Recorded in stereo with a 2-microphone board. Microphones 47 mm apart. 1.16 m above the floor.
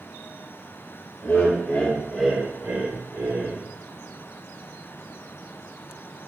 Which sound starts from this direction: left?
Laughter, at 1.2 s.